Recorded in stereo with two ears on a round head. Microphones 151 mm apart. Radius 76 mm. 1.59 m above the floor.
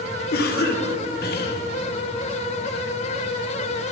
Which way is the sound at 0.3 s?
60° left (ahead or behind).